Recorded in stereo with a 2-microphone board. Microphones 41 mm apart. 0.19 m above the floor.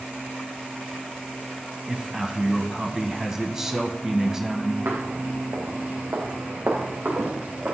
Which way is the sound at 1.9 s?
15° right (ahead or behind).